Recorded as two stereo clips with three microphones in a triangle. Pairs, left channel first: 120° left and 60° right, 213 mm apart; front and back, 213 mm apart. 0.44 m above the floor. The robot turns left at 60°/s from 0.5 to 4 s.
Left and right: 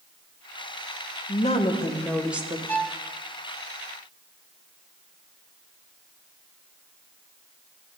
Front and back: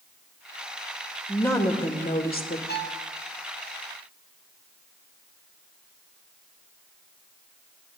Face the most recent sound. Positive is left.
turn(degrees=-35)